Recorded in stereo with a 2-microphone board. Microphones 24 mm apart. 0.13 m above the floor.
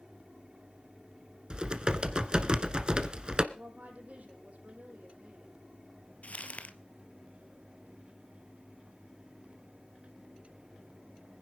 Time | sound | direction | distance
1.5 | typing on a keyboard | 35° right (ahead or behind) | 1.3 m
3.5 | a woman speaking | 65° right (ahead or behind) | 4.5 m
6.2 | crumpling | 65° left (ahead or behind) | 1.3 m